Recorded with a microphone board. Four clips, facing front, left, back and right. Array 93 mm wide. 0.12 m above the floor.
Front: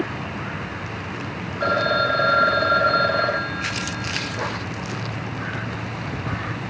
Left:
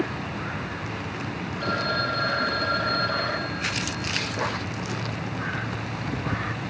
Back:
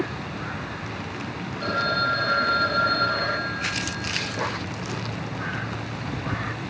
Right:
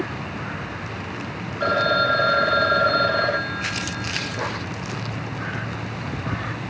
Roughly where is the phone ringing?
Ahead right.